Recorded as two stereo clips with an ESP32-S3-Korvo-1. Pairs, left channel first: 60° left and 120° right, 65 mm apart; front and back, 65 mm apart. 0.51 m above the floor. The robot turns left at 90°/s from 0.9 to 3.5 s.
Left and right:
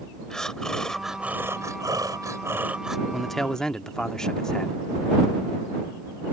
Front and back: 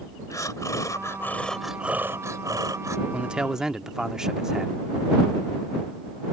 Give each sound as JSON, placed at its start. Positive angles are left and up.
{"t": 0.3, "sound": "breathing", "azimuth_deg": -20}
{"t": 3.1, "sound": "a man speaking", "azimuth_deg": 160}